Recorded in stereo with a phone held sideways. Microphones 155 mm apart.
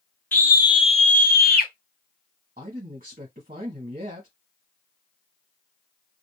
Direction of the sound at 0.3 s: 10° left (ahead or behind).